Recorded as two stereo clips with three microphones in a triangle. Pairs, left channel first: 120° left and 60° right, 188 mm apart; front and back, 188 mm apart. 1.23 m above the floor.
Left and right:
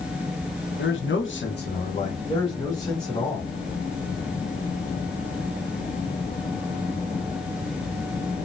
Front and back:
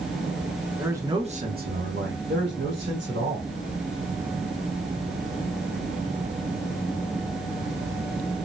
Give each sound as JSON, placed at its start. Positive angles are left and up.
{"t": 0.8, "sound": "a man speaking", "azimuth_deg": 95, "distance_m": 0.9}